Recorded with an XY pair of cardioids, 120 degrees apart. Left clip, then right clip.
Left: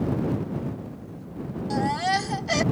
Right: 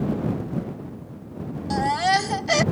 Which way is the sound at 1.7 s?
25° right.